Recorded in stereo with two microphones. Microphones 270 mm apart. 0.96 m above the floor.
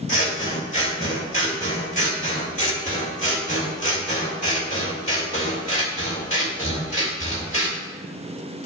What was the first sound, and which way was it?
Scissors, 25° left (ahead or behind).